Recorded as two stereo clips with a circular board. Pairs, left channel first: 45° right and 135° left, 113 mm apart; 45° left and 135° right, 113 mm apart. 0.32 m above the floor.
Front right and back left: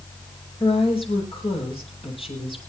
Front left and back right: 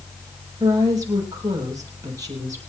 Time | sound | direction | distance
0.6 | a woman speaking | 80° right | 7.5 m